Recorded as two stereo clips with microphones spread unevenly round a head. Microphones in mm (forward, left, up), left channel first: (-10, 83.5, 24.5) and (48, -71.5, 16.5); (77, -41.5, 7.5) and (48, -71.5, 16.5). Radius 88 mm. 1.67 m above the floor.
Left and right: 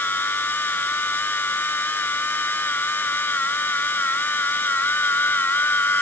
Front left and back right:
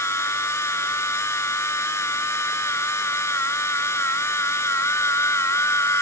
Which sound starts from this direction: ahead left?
A machine running, at 0.0 s.